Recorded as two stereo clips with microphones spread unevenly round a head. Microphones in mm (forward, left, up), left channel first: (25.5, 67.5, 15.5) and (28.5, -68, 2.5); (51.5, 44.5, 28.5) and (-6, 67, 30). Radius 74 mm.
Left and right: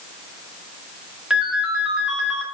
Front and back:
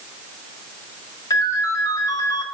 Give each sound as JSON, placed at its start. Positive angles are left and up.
{"t": 1.3, "sound": "a ringtone", "azimuth_deg": -5, "distance_m": 2.0}